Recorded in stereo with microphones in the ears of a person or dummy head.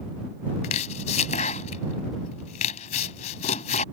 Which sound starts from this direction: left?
Chopping, at 0.6 s.